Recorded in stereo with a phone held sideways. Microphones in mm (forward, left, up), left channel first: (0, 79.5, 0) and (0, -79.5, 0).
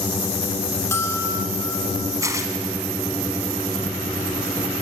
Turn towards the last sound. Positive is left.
turn(degrees=-20)  # may be behind; listen again after turning